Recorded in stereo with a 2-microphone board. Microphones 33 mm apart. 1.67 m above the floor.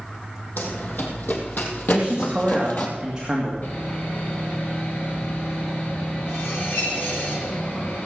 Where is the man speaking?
25° right (ahead or behind), 2.5 m.